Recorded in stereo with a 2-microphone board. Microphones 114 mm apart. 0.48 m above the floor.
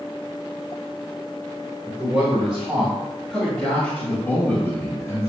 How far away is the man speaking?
About 1.9 m.